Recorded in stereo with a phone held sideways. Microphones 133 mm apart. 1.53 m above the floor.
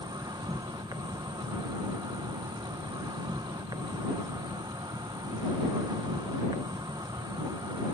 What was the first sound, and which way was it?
An insect, 30° right (ahead or behind).